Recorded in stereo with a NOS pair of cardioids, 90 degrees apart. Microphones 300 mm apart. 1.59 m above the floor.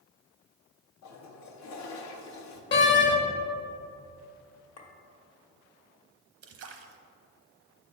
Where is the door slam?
40° left, 1.1 m.